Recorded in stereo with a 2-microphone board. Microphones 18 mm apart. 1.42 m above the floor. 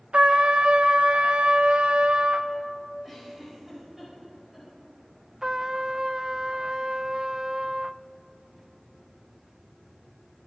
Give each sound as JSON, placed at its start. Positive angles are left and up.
{"t": 0.1, "sound": "a trumpet", "side_deg": -80, "distance_m": 1.6}
{"t": 3.0, "sound": "a giggle", "side_deg": -10, "distance_m": 8.5}
{"t": 5.4, "sound": "a trumpet", "side_deg": -35, "distance_m": 0.5}